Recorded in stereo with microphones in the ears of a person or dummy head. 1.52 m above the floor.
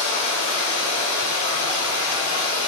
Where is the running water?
45° right (ahead or behind), 1.5 m.